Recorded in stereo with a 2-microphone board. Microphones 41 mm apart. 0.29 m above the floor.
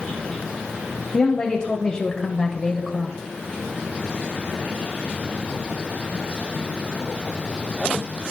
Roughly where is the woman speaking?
Left.